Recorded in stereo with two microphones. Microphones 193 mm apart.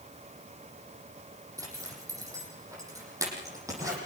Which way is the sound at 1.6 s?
15° right (ahead or behind).